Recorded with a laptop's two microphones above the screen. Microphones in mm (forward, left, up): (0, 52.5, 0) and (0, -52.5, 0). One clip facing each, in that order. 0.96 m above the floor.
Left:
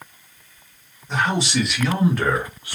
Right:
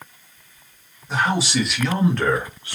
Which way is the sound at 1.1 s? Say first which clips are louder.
Even; 5° right (ahead or behind).